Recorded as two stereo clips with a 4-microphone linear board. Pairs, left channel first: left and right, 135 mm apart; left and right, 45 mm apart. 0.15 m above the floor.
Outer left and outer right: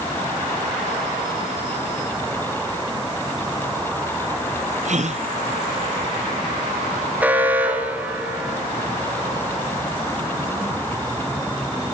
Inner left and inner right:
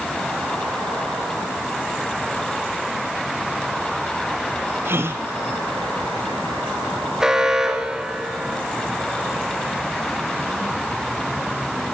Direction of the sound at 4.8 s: 60° right (ahead or behind).